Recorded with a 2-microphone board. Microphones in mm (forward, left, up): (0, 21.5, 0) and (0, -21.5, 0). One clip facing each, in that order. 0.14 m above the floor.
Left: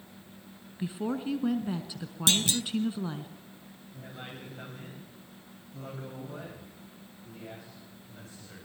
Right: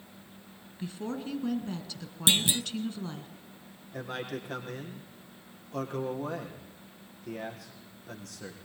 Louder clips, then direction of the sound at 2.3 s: Right 1 dB; 20° right (ahead or behind).